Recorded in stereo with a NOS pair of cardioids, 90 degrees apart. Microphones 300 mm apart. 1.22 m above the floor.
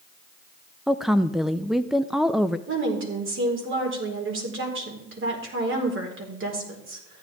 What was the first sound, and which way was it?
A woman speaking, straight ahead.